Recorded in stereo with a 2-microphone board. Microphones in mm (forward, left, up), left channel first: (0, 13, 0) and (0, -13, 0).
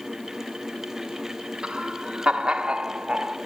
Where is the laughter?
40° right (ahead or behind), 1.8 m.